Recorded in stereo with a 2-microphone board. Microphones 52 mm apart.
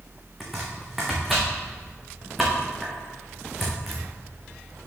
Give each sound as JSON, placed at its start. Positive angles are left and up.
{"t": 0.4, "sound": "chopping", "side_deg": -5, "distance_m": 3.0}